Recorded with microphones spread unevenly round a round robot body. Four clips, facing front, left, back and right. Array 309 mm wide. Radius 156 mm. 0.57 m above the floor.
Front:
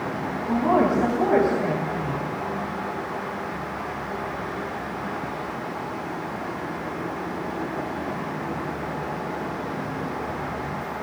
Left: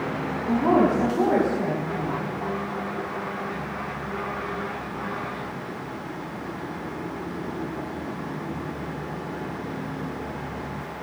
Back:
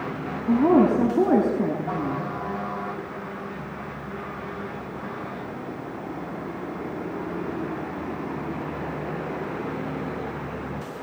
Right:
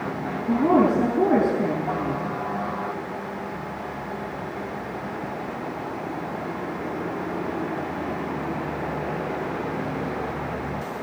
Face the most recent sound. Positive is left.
turn(degrees=180)